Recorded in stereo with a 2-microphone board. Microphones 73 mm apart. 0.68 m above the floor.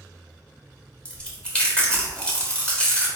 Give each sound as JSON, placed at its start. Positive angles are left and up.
{"t": 1.1, "sound": "chewing", "side_deg": 15, "distance_m": 1.2}